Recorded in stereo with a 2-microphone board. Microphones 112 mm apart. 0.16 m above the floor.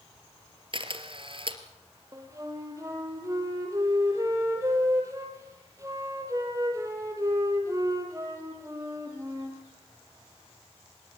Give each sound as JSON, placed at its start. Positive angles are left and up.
{"t": 0.7, "sound": "a camera shutter", "side_deg": -50, "distance_m": 2.5}
{"t": 2.1, "sound": "a flute", "side_deg": -30, "distance_m": 4.0}